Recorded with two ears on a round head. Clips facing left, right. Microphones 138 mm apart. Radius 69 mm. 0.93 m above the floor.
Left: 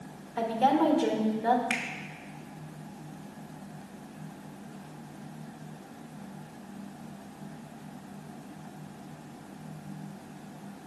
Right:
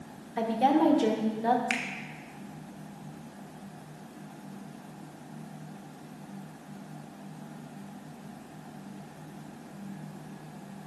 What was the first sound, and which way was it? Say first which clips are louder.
A woman speaking: even; 20° right (ahead or behind).